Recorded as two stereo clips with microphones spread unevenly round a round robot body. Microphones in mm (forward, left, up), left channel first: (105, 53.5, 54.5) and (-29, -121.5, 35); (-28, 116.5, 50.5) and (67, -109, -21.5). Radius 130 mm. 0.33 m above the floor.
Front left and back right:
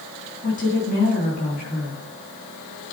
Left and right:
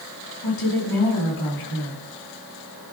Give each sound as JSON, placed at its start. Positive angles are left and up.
{"t": 0.4, "sound": "a woman speaking", "azimuth_deg": 115, "distance_m": 4.0}